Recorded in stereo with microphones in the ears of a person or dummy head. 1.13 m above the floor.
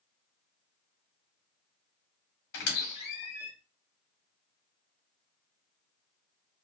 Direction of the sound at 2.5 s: 65° left (ahead or behind).